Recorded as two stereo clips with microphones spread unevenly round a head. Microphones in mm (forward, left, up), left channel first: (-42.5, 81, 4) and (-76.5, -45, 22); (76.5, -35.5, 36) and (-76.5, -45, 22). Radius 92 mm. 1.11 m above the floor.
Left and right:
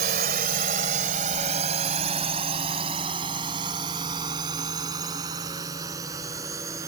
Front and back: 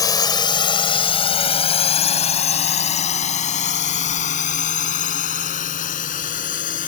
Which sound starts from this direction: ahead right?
A drone, at 0.0 s.